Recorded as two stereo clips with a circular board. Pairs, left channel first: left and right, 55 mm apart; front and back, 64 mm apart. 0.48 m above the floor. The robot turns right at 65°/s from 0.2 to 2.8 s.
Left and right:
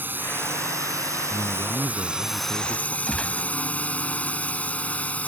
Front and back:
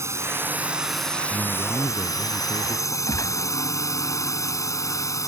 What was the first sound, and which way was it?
A drone, 140° right.